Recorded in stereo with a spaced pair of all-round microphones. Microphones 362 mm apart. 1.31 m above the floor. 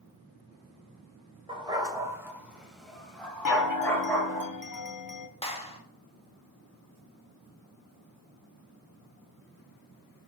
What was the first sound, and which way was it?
A dog barking, 15° right (ahead or behind).